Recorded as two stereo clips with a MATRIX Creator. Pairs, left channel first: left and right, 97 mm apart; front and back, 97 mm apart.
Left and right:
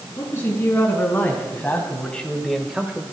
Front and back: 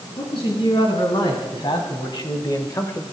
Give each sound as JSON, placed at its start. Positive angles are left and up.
{"t": 0.2, "sound": "a man speaking", "azimuth_deg": 25, "distance_m": 4.5}